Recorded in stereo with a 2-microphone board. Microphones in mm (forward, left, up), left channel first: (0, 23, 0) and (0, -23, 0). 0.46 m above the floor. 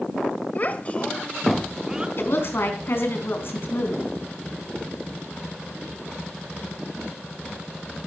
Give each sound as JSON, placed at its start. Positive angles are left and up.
{"t": 0.6, "sound": "a child speaking", "side_deg": 40, "distance_m": 1.7}
{"t": 2.2, "sound": "a woman speaking", "side_deg": 55, "distance_m": 4.0}